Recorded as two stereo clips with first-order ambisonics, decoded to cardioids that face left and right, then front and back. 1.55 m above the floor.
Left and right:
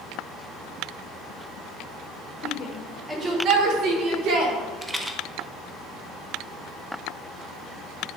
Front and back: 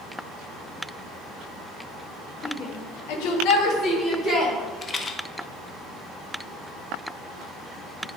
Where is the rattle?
20° right, 0.5 m.